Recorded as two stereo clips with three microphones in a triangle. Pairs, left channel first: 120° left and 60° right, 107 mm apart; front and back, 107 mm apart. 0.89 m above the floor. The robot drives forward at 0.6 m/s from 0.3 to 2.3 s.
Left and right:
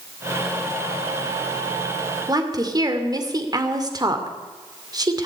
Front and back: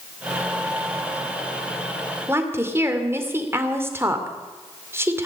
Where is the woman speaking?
115° right, 2 m.